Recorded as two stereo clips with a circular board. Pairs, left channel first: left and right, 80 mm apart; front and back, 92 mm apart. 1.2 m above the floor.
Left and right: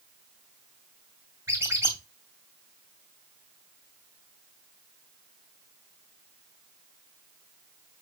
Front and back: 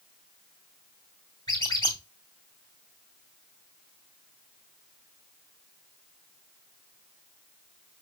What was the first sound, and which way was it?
A squeak, 35° right.